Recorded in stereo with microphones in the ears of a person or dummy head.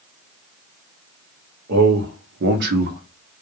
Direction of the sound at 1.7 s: 65° right (ahead or behind).